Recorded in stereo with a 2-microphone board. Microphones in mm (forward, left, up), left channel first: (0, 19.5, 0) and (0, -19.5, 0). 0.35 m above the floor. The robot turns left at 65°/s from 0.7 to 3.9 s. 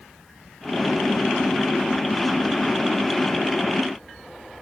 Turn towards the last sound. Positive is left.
No sound to turn to.